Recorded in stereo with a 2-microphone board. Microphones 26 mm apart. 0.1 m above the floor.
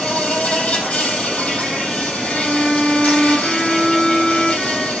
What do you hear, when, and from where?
0.0 s an insect: 70° left (ahead or behind), 4 m
2.2 s a violin: 20° left (ahead or behind), 1.0 m